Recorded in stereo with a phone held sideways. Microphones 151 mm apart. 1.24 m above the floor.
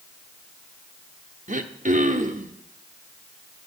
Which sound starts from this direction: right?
Throat clearing, at 1.5 s.